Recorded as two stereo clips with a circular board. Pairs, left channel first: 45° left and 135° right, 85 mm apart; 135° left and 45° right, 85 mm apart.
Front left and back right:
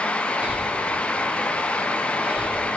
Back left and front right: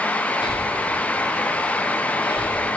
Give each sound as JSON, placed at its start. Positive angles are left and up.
{"t": 0.4, "sound": "breathing", "azimuth_deg": 155, "distance_m": 1.4}